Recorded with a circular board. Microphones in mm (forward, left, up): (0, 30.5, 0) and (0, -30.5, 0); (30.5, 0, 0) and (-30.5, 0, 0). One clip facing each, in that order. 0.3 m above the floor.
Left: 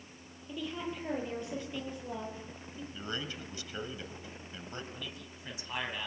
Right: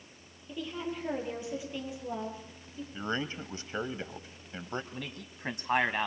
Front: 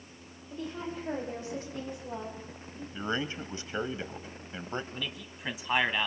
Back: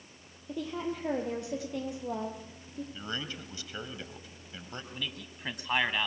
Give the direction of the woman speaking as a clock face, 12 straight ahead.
6 o'clock.